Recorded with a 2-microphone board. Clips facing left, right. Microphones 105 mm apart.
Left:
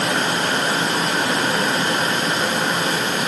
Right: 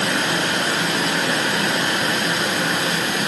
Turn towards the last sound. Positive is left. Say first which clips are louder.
# left 1 dB
turn(degrees=45)  # may be behind; listen again after turning